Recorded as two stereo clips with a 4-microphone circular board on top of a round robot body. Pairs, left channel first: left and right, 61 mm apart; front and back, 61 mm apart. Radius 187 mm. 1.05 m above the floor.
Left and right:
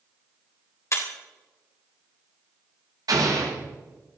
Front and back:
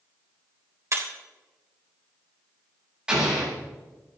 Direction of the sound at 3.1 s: 100° right.